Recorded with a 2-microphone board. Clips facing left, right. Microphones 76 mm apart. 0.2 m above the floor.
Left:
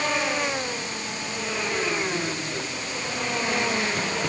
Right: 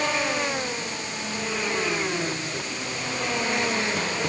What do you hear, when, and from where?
Only background noise.